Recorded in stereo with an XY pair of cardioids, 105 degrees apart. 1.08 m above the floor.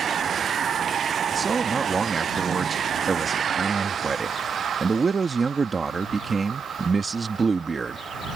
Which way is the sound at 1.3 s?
35° right.